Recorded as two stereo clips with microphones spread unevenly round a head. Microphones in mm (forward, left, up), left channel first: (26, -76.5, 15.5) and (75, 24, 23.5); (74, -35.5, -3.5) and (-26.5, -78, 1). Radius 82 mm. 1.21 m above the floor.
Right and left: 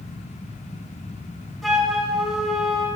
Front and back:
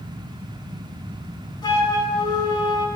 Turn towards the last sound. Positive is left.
turn(degrees=-25)